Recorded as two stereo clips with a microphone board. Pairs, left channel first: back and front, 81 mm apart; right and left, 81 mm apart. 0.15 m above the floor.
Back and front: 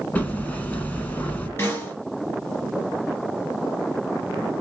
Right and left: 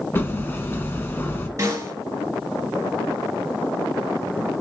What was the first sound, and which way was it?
Hammering, 125° right.